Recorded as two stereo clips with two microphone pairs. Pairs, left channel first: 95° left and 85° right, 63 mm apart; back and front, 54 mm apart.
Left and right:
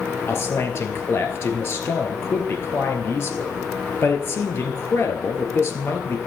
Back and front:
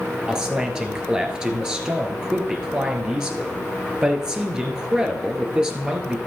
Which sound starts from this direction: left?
A man speaking, at 0.3 s.